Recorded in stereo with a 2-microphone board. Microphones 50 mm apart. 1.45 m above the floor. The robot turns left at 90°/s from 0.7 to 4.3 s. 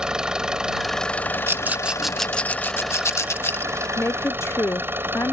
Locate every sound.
0.0 s an engine running: 165° right; by 5.3 s 125° right
1.5 s a rattle: 55° right (ahead or behind); by 3.9 s 25° left (ahead or behind)
4.0 s a woman speaking: 100° left; by 5.3 s 70° left